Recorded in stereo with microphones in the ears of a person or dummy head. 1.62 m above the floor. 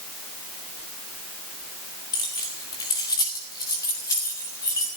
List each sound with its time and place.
2.1 s keys jangling: 20° left (ahead or behind), 2.5 m; by 4.9 s 15° left (ahead or behind), 4 m